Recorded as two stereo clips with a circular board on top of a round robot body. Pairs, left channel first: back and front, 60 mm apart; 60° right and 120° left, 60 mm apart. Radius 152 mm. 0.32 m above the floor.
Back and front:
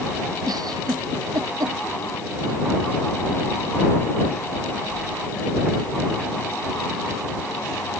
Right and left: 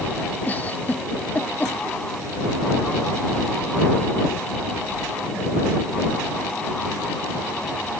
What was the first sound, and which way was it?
A giggle, 5° left.